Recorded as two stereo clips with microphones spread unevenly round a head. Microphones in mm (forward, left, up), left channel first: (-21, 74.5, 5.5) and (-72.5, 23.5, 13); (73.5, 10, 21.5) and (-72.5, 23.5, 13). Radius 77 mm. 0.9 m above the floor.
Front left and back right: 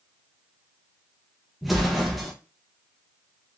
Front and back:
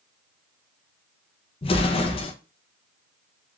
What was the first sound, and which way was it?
An explosion, 40° right.